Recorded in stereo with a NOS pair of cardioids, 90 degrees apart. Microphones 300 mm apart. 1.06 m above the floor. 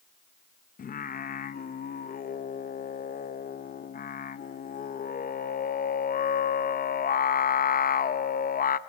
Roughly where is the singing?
Ahead left.